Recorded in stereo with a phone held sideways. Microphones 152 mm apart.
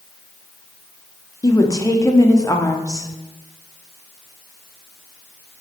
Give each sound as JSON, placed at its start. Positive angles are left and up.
{"t": 1.4, "sound": "a woman speaking", "side_deg": 20, "distance_m": 1.0}